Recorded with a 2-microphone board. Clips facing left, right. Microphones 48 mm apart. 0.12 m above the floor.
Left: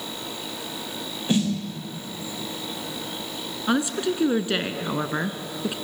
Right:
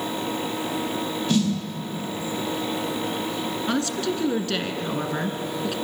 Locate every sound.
1.3 s a snare drum: 20° left (ahead or behind), 6 m
3.7 s a woman speaking: 20° left (ahead or behind), 1.1 m